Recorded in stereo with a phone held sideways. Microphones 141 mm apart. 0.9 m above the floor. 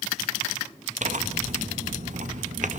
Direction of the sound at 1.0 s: 60° right (ahead or behind).